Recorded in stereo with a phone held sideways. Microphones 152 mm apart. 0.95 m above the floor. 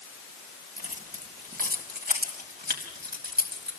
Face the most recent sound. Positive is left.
turn(degrees=-85)